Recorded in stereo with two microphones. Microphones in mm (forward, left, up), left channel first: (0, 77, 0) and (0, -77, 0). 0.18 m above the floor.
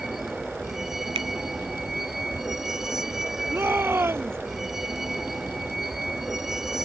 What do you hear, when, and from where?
0.0 s a vehicle: 5° right (ahead or behind)
1.1 s a finger snap: 40° right (ahead or behind)
3.5 s a shout: 15° right (ahead or behind)